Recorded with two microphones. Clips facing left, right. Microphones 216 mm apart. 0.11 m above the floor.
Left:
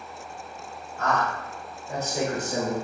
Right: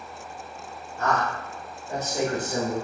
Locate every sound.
1.0 s a man speaking: 10° right (ahead or behind), 1.6 m; by 2.8 s 30° left (ahead or behind), 1.7 m